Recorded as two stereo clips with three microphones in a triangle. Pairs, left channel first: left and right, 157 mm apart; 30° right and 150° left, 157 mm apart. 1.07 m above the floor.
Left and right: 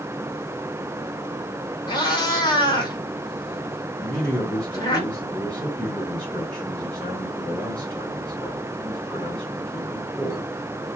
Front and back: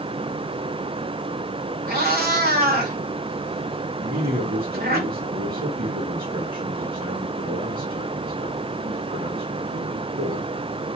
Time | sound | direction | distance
1.9 | a cat meowing | 150° left | 1.8 m
4.0 | a man speaking | 170° left | 1.3 m